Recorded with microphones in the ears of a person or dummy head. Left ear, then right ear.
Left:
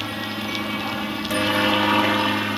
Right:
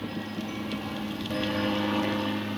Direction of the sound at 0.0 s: 40° left (ahead or behind).